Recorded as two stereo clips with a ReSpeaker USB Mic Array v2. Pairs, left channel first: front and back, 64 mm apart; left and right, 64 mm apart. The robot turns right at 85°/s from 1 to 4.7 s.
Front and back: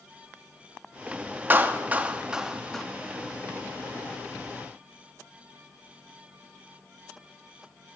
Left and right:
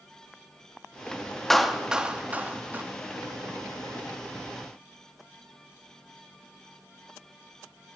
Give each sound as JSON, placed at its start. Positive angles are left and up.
{"t": 1.5, "sound": "a clap", "azimuth_deg": 175, "distance_m": 0.8}